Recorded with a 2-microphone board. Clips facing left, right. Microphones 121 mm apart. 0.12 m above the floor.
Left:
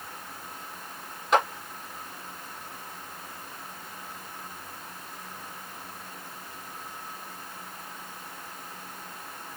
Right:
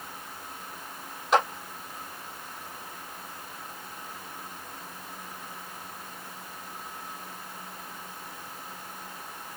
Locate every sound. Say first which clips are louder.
1.3 s a clap: even; centre (ahead or behind), 3 m